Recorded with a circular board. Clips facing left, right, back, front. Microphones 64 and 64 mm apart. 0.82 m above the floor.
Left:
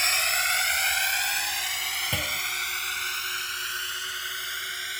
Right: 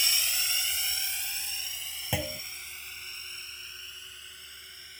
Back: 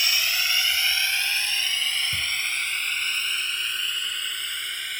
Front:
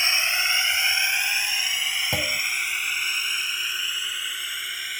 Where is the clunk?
10° right.